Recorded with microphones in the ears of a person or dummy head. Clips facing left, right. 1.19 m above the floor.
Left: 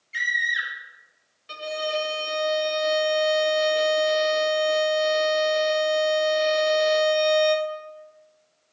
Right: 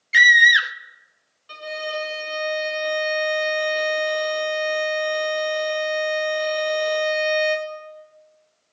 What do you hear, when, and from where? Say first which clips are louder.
0.1 s a scream: right 12 dB; 80° right, 0.7 m
1.5 s a violin: left 2 dB; 25° left (ahead or behind), 0.9 m